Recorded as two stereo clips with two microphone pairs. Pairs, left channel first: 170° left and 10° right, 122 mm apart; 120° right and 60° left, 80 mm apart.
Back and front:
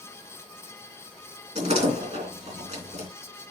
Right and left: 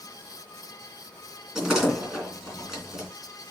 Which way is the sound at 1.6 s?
25° right.